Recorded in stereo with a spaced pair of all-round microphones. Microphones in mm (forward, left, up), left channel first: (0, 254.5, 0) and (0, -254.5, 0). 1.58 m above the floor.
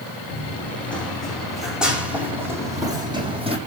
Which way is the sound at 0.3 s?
5° left (ahead or behind).